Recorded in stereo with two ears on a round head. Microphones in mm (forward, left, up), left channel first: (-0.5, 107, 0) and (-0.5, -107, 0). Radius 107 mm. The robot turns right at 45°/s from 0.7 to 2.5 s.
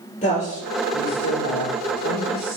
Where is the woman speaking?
30° left, 4 m; by 2.6 s 110° left, 4 m.